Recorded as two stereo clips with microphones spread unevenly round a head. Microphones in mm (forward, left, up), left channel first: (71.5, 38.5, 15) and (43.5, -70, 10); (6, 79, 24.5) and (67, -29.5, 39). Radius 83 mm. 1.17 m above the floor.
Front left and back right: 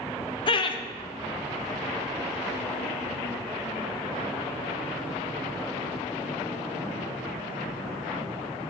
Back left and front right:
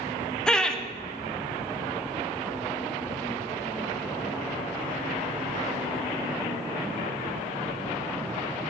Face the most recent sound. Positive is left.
turn(degrees=40)